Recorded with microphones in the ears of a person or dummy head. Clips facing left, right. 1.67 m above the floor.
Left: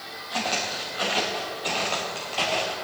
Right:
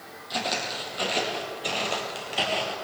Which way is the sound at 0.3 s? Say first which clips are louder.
Left 1 dB; 30° right (ahead or behind).